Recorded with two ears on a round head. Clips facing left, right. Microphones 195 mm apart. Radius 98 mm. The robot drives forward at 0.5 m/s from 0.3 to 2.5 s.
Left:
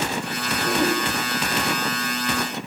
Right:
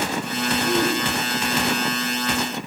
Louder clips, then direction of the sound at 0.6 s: Left 1 dB; 70° left (ahead or behind).